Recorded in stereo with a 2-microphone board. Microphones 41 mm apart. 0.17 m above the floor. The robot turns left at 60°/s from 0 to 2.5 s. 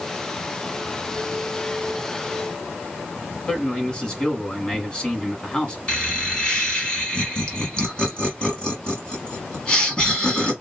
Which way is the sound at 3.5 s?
20° left (ahead or behind).